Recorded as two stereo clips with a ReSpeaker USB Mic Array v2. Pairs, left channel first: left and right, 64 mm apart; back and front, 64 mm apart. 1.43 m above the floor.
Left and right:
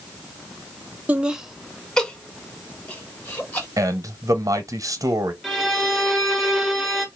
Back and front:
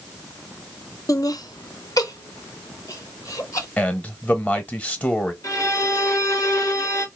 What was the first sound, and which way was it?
Laughter, 155° right.